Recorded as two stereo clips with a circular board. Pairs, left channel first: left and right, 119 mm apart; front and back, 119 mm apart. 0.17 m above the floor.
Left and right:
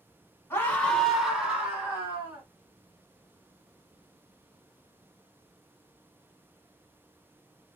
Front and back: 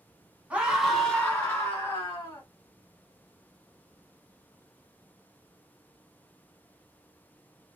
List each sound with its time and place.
0.5 s a scream: 120° left, 1.2 m; by 2.4 s 40° right, 1.7 m